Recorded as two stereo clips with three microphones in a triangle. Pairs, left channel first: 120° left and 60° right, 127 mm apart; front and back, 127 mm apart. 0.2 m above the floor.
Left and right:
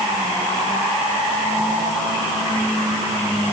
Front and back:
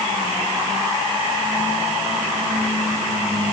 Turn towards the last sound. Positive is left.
No sound to turn to.